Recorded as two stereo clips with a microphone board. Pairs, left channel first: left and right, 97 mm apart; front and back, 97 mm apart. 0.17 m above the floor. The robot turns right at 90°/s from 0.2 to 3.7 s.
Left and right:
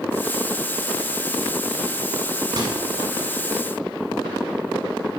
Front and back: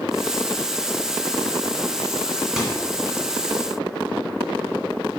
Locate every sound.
2.6 s a microwave: 95° right, 1.2 m; by 2.8 s 75° right, 1.2 m